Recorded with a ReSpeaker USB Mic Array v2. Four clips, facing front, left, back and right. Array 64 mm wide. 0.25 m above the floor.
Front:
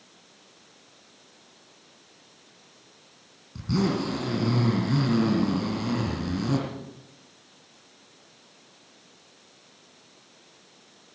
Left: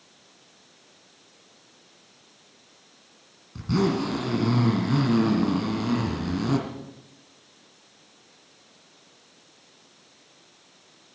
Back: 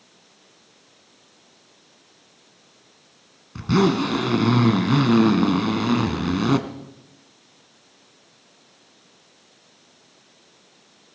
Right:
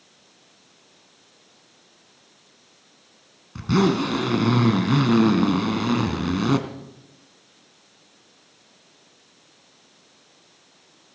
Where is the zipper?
140° right, 2 m.